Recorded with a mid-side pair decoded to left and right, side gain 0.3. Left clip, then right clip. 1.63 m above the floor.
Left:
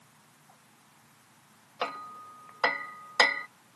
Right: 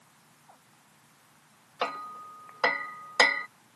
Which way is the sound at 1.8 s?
30° right.